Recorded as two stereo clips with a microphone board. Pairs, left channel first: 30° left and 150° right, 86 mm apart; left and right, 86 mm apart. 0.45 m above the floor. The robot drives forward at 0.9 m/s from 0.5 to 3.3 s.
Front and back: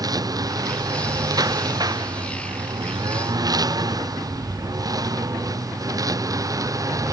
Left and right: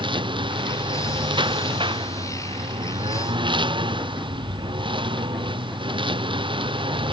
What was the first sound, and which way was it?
A lawn mower, 105° right.